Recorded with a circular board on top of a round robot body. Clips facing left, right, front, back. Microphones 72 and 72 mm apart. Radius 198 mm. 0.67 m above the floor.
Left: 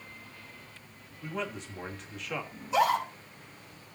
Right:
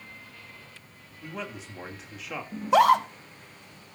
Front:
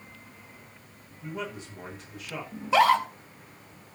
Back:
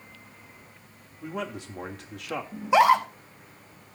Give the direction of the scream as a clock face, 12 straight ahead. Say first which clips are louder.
Right 7 dB, back 2 dB; 4 o'clock.